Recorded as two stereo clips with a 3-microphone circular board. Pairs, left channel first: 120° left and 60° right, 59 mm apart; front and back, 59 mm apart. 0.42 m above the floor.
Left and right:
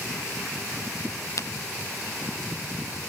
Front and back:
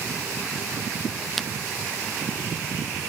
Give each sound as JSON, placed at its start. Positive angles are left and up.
{"t": 1.4, "sound": "a finger snap", "azimuth_deg": 90}